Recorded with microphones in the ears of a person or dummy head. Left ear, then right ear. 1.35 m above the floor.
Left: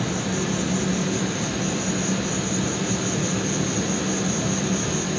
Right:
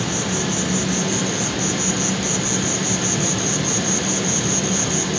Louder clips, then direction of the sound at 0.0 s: Right 3 dB; 30° right (ahead or behind).